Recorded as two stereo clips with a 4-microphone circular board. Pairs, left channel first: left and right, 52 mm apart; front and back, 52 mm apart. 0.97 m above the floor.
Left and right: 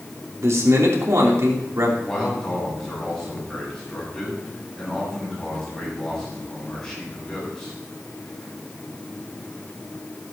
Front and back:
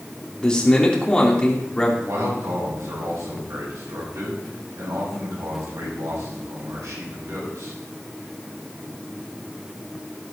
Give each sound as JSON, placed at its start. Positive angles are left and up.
{"t": 0.4, "sound": "a man speaking", "azimuth_deg": -70, "distance_m": 3.0}
{"t": 2.0, "sound": "a man speaking", "azimuth_deg": 165, "distance_m": 5.5}